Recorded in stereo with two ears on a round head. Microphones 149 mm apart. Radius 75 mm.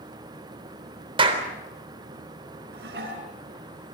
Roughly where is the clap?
Right.